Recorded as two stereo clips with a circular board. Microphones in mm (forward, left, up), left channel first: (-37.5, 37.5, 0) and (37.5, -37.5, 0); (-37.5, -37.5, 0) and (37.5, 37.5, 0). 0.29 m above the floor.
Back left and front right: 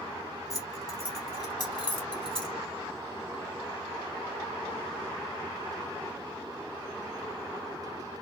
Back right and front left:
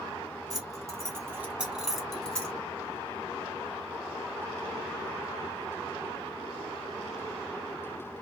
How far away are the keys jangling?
About 1.5 m.